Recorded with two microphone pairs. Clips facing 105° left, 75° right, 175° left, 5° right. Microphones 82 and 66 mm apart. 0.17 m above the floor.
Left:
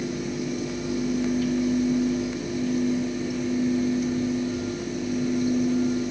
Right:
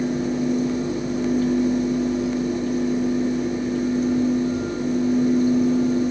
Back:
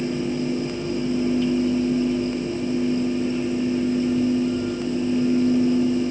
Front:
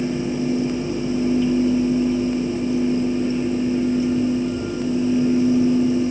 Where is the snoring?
No snoring in this recording.